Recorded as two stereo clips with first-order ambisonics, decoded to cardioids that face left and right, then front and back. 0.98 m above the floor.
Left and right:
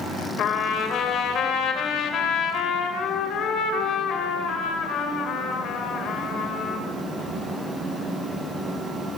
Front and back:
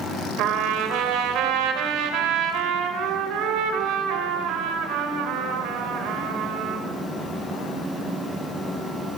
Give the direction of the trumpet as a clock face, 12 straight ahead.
7 o'clock.